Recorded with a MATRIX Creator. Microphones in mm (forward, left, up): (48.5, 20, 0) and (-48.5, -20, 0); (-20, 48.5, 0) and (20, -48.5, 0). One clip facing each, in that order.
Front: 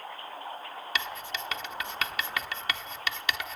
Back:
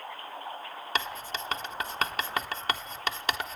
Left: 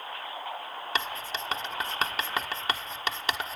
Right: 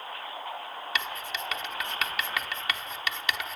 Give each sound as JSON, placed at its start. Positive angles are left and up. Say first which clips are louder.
{"t": 0.9, "sound": "writing", "louder": "back 3 dB, left 2 dB", "azimuth_deg": 160, "distance_m": 1.2}